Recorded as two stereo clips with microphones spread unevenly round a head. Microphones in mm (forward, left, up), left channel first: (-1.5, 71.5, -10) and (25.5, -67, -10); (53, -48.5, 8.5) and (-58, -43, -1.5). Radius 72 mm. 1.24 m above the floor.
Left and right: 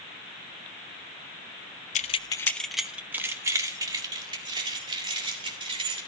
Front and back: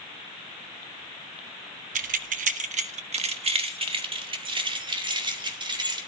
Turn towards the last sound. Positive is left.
turn(degrees=-135)